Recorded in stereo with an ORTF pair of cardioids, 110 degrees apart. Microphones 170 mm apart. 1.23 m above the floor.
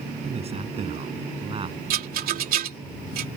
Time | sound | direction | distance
0.2 | a man speaking | 40° right | ?
1.9 | a rattle | 60° right | ?